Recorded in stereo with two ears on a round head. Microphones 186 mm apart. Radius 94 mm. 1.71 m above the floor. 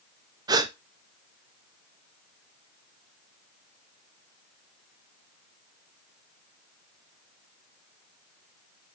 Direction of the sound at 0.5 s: 20° right (ahead or behind).